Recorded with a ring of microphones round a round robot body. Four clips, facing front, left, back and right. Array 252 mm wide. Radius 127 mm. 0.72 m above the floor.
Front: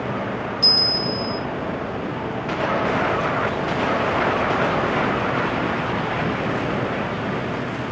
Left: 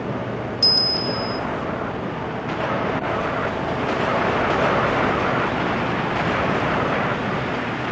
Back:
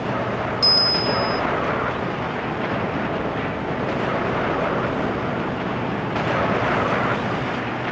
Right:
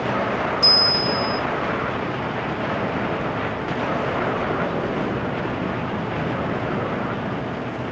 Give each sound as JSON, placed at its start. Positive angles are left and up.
{"t": 0.6, "sound": "a bell", "azimuth_deg": 145, "distance_m": 1.0}